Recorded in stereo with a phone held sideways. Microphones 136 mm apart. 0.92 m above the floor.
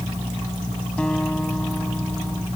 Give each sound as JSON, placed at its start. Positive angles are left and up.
{"t": 1.0, "sound": "a guitar", "side_deg": 5}